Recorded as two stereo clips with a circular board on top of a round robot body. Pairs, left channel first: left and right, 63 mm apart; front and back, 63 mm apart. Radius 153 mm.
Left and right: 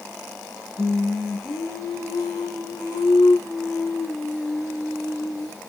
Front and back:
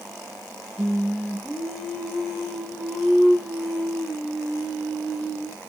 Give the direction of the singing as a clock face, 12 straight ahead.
9 o'clock.